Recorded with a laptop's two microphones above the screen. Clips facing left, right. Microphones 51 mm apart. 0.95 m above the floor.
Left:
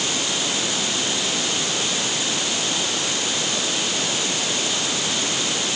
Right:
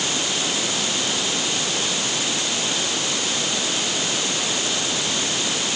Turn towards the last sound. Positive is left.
No sound to turn to.